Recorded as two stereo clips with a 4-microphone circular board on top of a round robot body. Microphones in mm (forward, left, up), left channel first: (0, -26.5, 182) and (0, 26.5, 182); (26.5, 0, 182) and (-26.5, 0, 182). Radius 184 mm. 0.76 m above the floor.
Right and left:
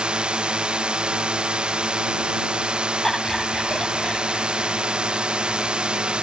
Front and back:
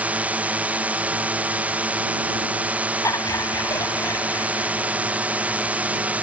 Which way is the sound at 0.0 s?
145° left.